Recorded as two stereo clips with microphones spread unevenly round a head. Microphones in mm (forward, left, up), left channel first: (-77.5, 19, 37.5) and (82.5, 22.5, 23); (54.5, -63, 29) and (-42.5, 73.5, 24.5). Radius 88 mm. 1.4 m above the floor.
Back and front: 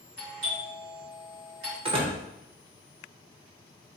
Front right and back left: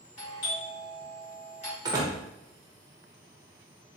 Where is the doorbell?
5° right, 2.5 m.